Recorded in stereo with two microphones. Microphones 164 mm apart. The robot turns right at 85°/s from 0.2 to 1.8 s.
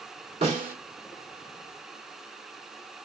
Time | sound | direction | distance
0.4 | a snare drum | 35° right (ahead or behind) | 1.9 m